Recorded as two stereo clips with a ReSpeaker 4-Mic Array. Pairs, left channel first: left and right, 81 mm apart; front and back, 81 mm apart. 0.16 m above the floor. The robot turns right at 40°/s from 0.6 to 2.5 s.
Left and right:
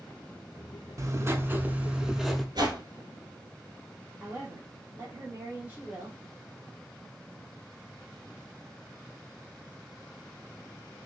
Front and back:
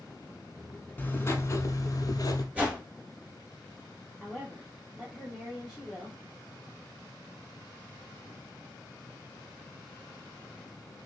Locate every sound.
1.0 s writing: 55° right, 0.5 m; by 2.5 s straight ahead, 0.5 m
2.5 s a whoosh: 105° right, 1.4 m
4.2 s a woman speaking: 105° right, 1.2 m